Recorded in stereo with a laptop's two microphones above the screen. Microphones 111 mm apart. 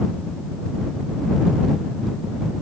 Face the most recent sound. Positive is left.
No sound to turn to.